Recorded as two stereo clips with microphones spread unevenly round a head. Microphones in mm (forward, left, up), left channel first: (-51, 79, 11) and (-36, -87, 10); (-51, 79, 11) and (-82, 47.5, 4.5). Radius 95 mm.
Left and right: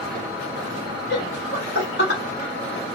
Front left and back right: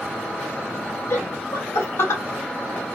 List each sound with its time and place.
1.1 s laughter: 55° left, 1.5 m